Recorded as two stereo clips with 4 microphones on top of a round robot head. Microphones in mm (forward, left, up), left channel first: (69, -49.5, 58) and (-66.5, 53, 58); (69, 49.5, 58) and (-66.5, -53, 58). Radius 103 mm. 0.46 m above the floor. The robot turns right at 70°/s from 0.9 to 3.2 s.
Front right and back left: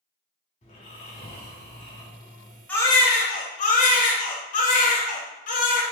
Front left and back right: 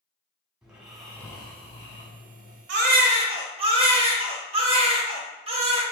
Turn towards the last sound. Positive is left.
turn(degrees=-85)